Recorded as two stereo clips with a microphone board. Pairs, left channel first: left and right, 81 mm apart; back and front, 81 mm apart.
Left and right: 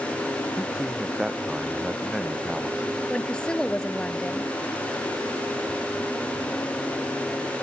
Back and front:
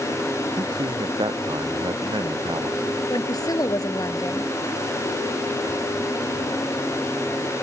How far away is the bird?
I don't hear a bird.